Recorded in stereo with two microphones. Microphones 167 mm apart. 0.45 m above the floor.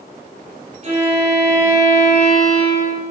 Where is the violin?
40° right (ahead or behind), 4.5 m.